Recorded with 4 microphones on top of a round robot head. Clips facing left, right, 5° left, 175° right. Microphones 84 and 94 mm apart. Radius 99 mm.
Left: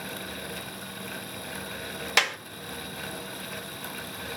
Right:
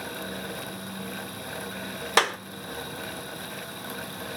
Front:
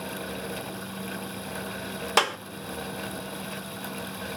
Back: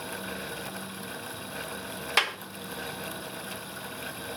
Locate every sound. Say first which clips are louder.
2.2 s a clap: right 4 dB, front 6 dB; 45° right, 0.9 m